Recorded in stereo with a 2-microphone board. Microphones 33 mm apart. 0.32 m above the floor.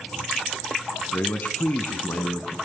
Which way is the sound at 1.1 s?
55° left (ahead or behind).